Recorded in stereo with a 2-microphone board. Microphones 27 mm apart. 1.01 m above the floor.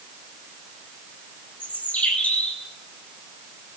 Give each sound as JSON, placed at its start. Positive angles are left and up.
{"t": 1.6, "sound": "a bird", "side_deg": 70, "distance_m": 6.5}